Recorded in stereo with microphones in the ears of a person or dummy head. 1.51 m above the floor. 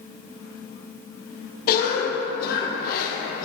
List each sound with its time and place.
1.7 s a cough: 50° left (ahead or behind), 1.3 m